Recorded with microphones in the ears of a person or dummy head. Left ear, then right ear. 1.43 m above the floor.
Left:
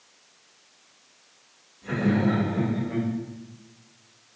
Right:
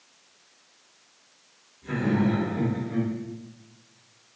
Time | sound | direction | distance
1.8 | laughter | 45° left (ahead or behind) | 1.7 m